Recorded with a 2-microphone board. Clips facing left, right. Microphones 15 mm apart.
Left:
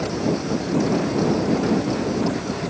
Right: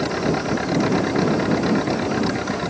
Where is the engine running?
55° right (ahead or behind).